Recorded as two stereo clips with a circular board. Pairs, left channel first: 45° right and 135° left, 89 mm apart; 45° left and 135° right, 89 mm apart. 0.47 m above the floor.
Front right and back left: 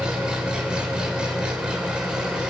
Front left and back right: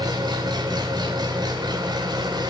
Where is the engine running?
145° right, 1.7 m.